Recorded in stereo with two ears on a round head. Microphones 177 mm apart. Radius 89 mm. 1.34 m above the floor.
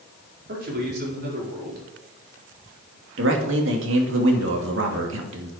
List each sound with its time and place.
0.5 s a man speaking: 55° right (ahead or behind), 4.5 m
3.2 s a man speaking: 75° right (ahead or behind), 2.5 m